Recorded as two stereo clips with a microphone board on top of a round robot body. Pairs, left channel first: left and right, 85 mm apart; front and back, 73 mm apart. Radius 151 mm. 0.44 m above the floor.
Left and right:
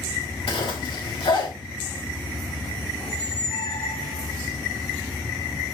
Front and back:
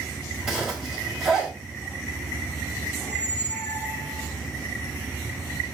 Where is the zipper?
95° left, 4 m.